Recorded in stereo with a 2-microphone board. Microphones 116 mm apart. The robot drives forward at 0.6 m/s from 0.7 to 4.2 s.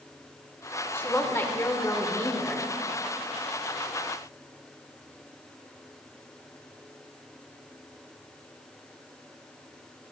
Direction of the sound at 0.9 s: 20° left (ahead or behind).